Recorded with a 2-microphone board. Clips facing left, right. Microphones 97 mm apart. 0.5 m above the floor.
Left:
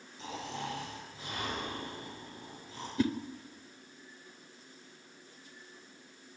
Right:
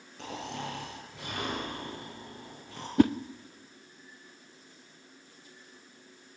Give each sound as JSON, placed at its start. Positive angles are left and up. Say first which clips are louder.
{"t": 0.2, "sound": "snoring", "louder": "right 2 dB", "side_deg": -65, "distance_m": 7.0}
{"t": 3.0, "sound": "a whoosh", "louder": "right 8 dB", "side_deg": -60, "distance_m": 0.6}